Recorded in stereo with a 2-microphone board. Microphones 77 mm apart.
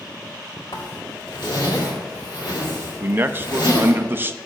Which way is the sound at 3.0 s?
30° right (ahead or behind).